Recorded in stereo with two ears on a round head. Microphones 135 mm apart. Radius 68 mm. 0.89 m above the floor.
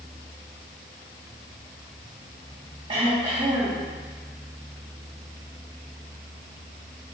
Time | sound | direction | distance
2.9 | throat clearing | 35° right (ahead or behind) | 1.9 m